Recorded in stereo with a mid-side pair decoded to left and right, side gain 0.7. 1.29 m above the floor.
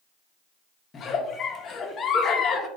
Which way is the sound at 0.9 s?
35° left.